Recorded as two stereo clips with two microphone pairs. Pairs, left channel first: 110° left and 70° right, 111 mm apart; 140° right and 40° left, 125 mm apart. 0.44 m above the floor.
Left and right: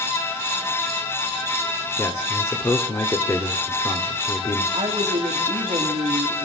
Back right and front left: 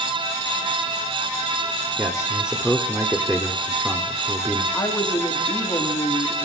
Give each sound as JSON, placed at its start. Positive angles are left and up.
{"t": 2.0, "sound": "a man speaking", "azimuth_deg": 110, "distance_m": 1.3}
{"t": 4.7, "sound": "a woman speaking", "azimuth_deg": -95, "distance_m": 2.0}